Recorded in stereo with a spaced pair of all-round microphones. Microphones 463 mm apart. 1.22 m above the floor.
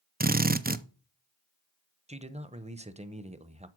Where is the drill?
20° right (ahead or behind), 0.5 m.